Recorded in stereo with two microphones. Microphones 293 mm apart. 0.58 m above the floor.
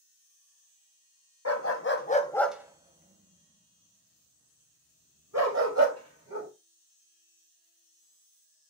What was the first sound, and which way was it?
A dog barking, 60° left (ahead or behind).